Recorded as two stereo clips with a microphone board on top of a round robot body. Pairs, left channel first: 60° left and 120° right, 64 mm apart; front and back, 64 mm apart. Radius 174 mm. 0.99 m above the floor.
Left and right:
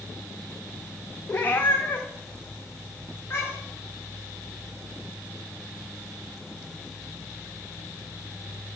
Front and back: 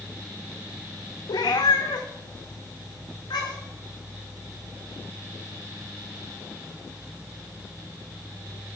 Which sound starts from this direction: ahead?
A cat meowing, at 1.3 s.